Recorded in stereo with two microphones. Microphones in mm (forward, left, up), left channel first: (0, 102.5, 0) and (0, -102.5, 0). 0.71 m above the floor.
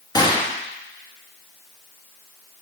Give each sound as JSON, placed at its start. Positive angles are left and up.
{"t": 0.1, "sound": "a gunshot", "side_deg": 20, "distance_m": 1.2}